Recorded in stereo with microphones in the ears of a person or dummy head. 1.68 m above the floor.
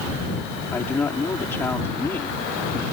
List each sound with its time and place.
0.7 s a man speaking: 15° left (ahead or behind)